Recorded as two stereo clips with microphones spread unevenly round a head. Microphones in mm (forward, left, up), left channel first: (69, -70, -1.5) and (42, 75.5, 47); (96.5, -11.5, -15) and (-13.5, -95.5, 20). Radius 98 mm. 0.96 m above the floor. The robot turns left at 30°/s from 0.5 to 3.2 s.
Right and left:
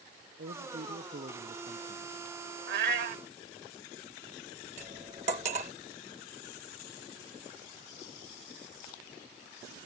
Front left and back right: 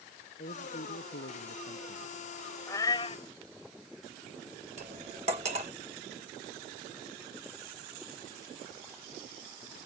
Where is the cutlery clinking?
160° left.